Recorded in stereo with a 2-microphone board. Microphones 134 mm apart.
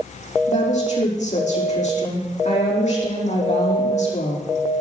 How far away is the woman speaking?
About 6 m.